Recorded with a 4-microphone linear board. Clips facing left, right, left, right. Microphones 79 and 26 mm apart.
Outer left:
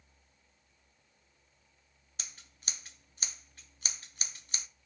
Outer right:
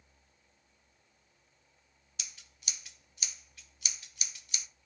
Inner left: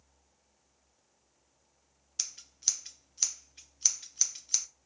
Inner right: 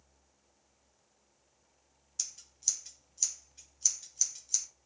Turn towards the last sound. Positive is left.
turn(degrees=40)  # may be behind; listen again after turning